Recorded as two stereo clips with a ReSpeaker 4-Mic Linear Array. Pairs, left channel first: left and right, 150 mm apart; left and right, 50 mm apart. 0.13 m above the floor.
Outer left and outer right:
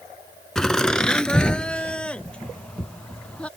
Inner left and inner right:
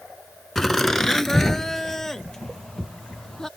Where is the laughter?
5° left (ahead or behind).